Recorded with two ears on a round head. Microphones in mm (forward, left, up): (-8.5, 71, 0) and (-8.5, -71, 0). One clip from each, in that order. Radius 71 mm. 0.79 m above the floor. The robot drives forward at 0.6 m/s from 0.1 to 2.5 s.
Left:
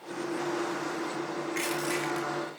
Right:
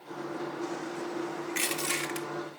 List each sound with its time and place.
1.5 s crushing: 30° right (ahead or behind), 1.7 m; by 2.3 s 40° right (ahead or behind), 1.4 m